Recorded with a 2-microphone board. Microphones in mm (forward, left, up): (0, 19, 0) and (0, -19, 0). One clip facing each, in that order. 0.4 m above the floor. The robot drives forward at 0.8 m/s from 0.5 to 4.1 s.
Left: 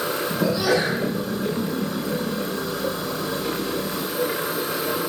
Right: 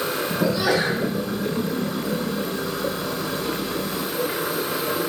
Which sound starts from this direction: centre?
A sneeze, at 0.4 s.